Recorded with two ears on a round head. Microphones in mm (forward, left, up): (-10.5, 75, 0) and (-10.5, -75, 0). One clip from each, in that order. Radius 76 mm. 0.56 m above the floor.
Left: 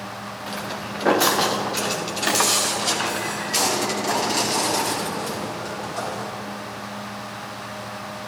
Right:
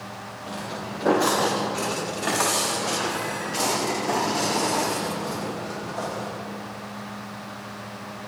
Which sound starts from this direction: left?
Footsteps, at 0.5 s.